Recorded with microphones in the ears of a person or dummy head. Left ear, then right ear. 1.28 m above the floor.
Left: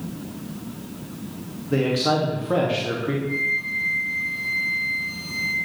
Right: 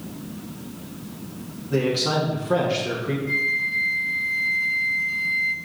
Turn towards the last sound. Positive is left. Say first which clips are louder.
# right 3 dB
turn(degrees=-10)  # may be behind; listen again after turning